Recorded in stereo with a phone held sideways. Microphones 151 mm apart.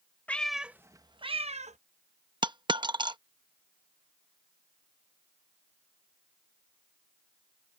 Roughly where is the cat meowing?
Centre.